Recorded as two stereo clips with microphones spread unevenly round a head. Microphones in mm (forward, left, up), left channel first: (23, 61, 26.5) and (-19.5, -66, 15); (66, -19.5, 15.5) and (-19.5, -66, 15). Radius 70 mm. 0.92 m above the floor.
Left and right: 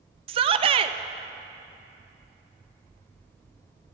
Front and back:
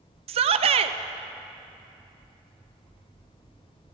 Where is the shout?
150° right, 0.5 m.